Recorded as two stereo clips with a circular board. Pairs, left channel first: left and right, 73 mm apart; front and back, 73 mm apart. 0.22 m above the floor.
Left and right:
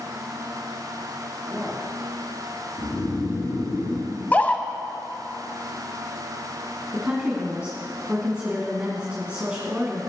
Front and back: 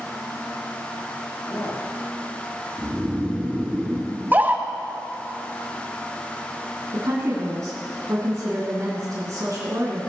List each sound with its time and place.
1.4 s a man speaking: 10° right, 3 m
2.8 s snoring: 105° left, 3 m
4.1 s a scream: 140° left, 1.2 m
6.9 s a woman speaking: 160° right, 2 m